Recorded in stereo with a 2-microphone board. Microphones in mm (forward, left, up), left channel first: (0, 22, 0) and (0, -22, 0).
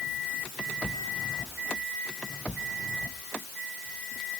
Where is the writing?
I don't hear writing.